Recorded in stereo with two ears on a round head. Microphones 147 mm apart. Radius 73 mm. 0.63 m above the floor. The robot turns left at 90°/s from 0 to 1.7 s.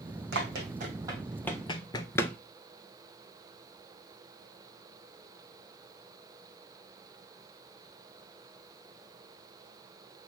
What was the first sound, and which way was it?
Running footsteps, 75° right (ahead or behind).